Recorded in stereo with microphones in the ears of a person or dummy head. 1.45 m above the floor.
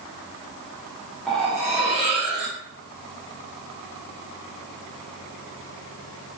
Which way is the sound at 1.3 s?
Centre (ahead or behind).